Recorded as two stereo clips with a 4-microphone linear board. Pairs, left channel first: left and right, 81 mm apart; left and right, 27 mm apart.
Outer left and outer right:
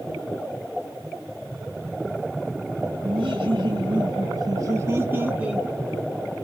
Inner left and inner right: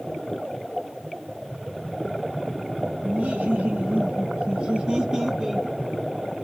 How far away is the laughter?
About 1.3 m.